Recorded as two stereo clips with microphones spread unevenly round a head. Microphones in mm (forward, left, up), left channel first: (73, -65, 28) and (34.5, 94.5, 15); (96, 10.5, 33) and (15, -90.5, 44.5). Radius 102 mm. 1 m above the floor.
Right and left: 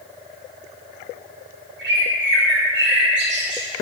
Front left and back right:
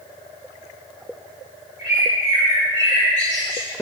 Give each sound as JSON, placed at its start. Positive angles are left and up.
{"t": 1.8, "sound": "a bird", "azimuth_deg": 105, "distance_m": 4.5}